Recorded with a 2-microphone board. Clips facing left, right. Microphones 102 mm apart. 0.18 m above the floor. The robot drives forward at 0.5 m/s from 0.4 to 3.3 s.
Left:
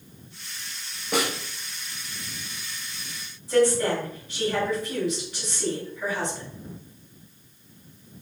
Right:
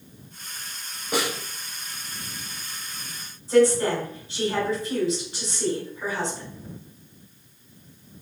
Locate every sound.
1.1 s a snare drum: 15° right (ahead or behind), 2.0 m
3.5 s a woman speaking: 30° right (ahead or behind), 1.7 m